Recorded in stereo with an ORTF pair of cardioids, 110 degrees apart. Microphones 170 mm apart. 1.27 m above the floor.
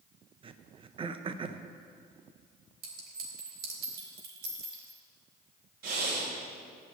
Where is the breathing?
65° right, 3.5 m.